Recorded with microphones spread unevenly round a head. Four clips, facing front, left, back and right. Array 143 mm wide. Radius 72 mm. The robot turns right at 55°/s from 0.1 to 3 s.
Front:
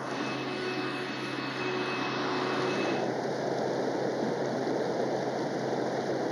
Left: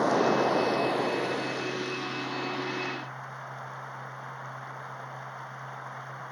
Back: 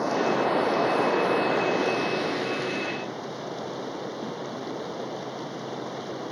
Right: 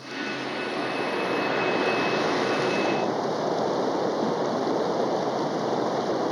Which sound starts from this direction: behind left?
Running water, at 0.0 s.